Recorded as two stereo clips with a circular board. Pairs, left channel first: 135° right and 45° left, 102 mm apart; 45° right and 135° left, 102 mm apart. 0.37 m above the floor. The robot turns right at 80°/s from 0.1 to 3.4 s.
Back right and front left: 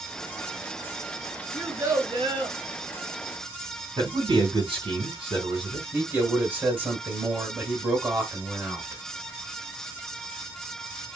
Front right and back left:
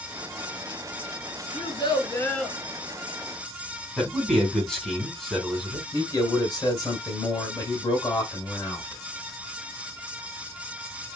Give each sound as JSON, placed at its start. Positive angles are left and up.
{"t": 1.5, "sound": "a child speaking", "azimuth_deg": -40, "distance_m": 2.5}
{"t": 4.0, "sound": "a man speaking", "azimuth_deg": 40, "distance_m": 2.5}
{"t": 5.9, "sound": "a man speaking", "azimuth_deg": -15, "distance_m": 1.8}